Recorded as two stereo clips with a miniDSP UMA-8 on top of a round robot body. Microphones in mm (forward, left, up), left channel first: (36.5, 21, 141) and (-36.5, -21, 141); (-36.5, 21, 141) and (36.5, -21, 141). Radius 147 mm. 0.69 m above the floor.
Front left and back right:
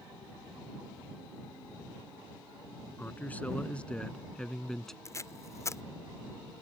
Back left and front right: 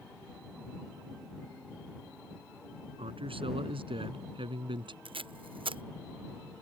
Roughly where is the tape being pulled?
Ahead right.